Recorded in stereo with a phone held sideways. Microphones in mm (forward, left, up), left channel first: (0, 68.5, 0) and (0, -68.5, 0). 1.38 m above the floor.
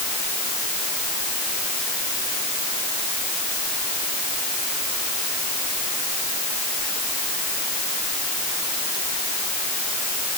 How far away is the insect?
No insect in this recording.